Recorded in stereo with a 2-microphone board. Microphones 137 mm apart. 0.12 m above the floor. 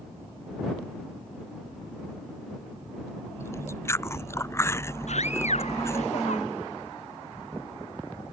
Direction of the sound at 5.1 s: 60° left (ahead or behind).